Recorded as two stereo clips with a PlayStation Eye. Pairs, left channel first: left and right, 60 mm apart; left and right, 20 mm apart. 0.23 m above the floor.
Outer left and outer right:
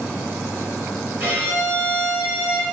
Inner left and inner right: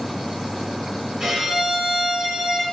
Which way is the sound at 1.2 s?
40° right (ahead or behind).